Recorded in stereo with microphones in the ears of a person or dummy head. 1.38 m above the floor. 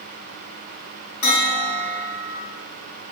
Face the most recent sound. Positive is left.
turn(degrees=45)  # may be behind; listen again after turning